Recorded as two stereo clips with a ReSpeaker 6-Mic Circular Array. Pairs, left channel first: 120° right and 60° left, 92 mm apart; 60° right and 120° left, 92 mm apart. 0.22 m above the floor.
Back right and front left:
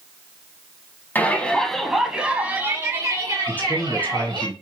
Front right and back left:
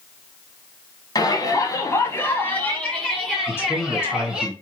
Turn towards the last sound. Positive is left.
turn(degrees=-80)